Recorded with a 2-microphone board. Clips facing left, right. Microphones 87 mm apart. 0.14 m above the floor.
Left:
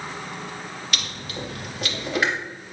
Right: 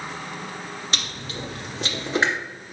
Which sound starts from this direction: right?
Chewing, at 0.9 s.